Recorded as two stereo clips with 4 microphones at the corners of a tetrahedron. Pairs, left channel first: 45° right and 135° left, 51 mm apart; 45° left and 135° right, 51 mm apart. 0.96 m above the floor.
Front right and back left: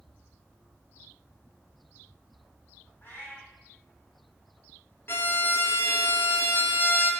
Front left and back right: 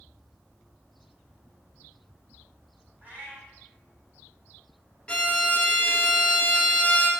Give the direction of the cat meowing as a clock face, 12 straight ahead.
3 o'clock.